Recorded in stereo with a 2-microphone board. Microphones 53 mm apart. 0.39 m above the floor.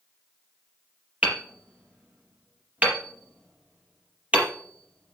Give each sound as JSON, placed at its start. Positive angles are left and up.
{"t": 1.2, "sound": "hammering", "side_deg": -30, "distance_m": 4.5}